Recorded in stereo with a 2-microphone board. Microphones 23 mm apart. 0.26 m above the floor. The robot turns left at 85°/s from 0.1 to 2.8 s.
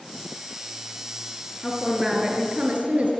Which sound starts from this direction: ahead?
A woman speaking, at 1.6 s.